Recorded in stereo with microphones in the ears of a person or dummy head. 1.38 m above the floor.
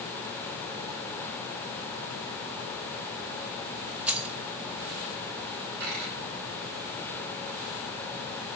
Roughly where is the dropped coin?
Right.